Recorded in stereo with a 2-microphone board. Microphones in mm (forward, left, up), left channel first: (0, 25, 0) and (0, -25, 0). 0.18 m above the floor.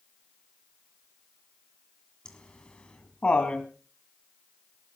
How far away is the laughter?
About 1.7 m.